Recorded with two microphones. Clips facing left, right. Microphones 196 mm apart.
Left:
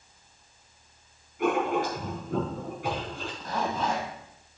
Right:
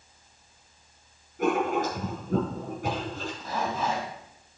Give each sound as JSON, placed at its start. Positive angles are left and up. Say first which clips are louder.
{"t": 1.4, "sound": "writing", "louder": "right 1 dB", "side_deg": -45, "distance_m": 5.0}
{"t": 3.4, "sound": "a zipper", "louder": "left 1 dB", "side_deg": -10, "distance_m": 3.0}